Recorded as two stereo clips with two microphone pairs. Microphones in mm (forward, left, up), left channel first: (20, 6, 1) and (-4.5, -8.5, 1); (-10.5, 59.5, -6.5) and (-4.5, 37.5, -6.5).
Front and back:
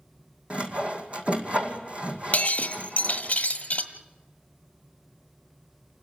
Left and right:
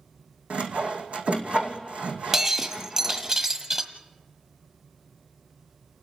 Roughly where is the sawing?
Right.